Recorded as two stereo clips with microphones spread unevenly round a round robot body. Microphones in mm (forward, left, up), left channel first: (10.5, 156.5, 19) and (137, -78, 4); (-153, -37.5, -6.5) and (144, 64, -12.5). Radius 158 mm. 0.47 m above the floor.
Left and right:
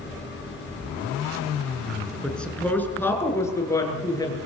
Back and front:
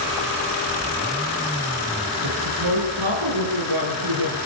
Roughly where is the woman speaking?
Ahead left.